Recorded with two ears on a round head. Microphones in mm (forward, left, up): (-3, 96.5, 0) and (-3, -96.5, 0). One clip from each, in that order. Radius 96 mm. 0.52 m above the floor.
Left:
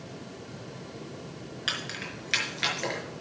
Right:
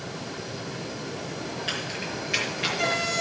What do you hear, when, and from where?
1.7 s keys jangling: 50° left (ahead or behind), 4.5 m; by 3.0 s 45° left (ahead or behind), 5.5 m